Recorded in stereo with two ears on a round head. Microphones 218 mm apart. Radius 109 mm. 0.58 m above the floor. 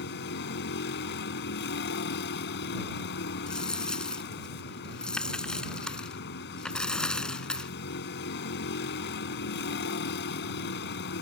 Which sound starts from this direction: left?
A vehicle, at 0.0 s.